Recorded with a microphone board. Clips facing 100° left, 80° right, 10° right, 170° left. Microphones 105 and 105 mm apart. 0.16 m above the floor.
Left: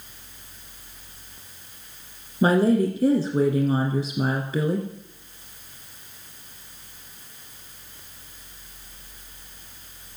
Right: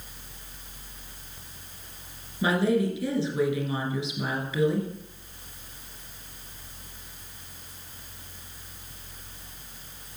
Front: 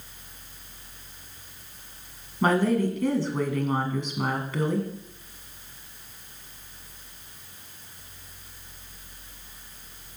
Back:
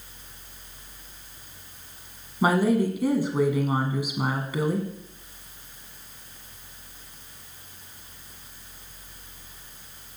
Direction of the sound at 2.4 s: 95° left.